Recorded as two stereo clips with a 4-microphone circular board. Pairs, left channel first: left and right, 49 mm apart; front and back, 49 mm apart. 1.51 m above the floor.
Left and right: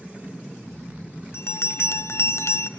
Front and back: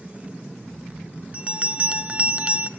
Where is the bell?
115° left, 0.8 m.